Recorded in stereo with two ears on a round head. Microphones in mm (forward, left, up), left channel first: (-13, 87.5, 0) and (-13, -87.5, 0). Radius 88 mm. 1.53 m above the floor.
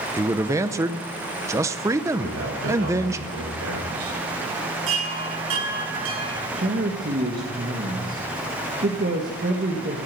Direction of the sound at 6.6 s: 45° right (ahead or behind).